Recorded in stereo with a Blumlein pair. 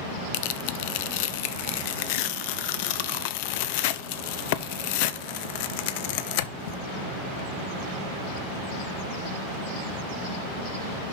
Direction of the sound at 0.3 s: 45° left.